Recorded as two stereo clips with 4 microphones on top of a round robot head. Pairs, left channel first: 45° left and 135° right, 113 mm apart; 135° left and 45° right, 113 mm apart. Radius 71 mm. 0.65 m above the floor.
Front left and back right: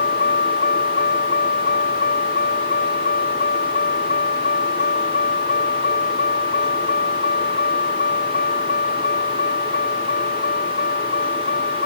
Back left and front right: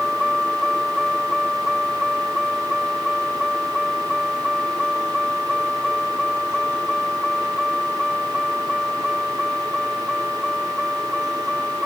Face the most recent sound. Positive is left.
turn(degrees=45)